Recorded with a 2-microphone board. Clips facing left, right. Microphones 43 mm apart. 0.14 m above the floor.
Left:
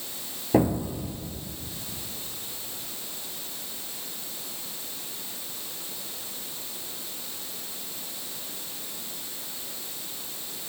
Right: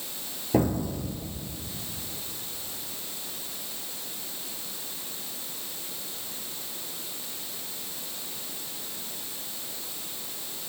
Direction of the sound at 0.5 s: 15° left (ahead or behind).